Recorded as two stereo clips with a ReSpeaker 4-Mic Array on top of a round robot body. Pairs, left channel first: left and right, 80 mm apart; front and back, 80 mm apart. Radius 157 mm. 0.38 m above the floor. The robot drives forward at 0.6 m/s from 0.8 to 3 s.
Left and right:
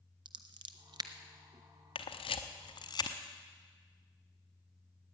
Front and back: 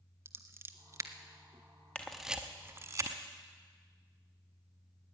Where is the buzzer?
No buzzer in this recording.